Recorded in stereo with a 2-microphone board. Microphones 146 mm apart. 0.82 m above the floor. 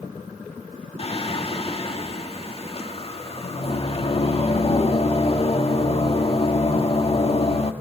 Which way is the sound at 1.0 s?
45° left (ahead or behind).